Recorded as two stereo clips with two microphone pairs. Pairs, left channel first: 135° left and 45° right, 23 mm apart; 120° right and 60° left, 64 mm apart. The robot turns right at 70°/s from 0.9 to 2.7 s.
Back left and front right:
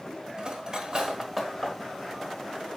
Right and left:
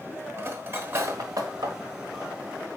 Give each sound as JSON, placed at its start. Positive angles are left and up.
{"t": 0.4, "sound": "cutlery clinking", "azimuth_deg": 10, "distance_m": 0.9}